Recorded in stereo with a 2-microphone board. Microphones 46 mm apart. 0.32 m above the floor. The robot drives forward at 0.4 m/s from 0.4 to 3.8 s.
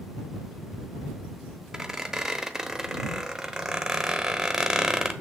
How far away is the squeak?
About 0.9 m.